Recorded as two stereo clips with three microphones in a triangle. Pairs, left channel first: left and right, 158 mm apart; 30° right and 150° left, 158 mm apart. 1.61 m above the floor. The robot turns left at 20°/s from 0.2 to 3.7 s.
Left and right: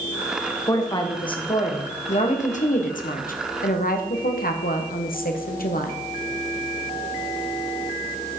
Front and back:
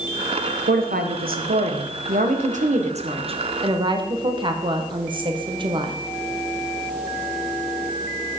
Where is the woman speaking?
155° left, 1.1 m; by 6.0 s 95° left, 1.1 m.